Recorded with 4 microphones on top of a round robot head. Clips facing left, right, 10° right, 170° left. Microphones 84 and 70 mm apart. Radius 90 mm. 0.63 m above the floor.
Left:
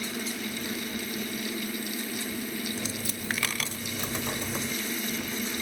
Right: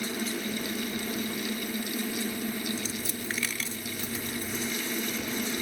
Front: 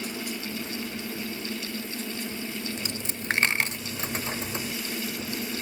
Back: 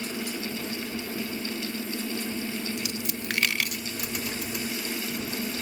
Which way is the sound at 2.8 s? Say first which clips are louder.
Even, back 2 dB; 45° left.